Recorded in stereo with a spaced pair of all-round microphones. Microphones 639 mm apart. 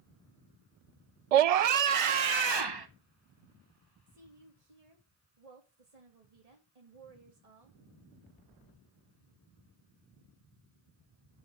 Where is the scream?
75° right (ahead or behind), 0.5 m; by 2.9 s 40° right (ahead or behind), 1.0 m.